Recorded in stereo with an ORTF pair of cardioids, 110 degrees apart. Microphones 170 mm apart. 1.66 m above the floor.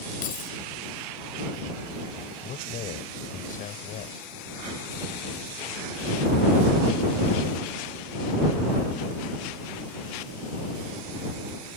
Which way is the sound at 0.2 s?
55° left.